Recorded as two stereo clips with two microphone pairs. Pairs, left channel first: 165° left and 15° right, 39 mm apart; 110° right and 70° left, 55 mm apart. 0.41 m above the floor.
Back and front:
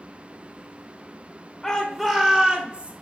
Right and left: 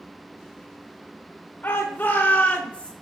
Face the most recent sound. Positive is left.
turn(degrees=-45)